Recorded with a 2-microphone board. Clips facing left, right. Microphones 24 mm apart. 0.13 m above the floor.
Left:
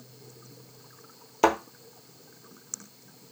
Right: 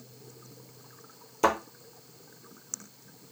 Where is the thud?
25° left (ahead or behind), 0.8 m.